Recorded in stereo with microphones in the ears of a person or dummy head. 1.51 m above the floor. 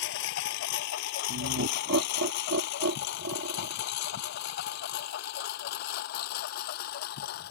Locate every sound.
0.0 s a lawn mower: 75° left (ahead or behind); by 7.5 s 60° left (ahead or behind)
1.3 s laughter: 75° right (ahead or behind)